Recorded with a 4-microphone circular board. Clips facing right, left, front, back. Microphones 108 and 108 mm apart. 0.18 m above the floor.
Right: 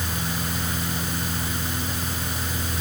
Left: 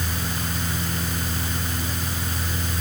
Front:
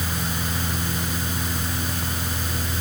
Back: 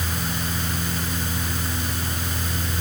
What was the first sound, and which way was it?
Only background noise.